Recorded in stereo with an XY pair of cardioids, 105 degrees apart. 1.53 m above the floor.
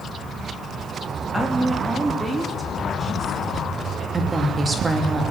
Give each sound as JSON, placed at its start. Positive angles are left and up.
{"t": 1.3, "sound": "a woman speaking", "azimuth_deg": -5, "distance_m": 3.0}
{"t": 4.1, "sound": "a woman speaking", "azimuth_deg": -30, "distance_m": 3.0}